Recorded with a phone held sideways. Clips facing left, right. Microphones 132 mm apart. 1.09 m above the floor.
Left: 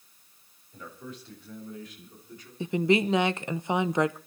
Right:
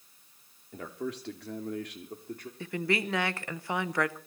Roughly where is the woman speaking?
Left.